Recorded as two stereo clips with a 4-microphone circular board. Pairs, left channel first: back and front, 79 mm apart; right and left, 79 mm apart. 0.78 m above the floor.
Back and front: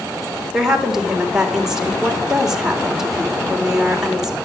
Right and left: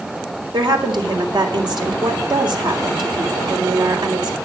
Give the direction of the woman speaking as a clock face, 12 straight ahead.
9 o'clock.